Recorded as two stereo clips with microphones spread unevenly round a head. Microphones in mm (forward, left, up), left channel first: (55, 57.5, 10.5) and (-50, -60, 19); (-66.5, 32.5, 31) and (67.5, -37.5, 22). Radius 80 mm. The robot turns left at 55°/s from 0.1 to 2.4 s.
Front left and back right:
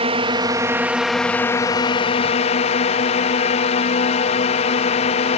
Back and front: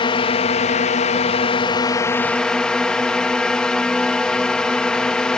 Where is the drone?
165° right; by 5.4 s 65° left.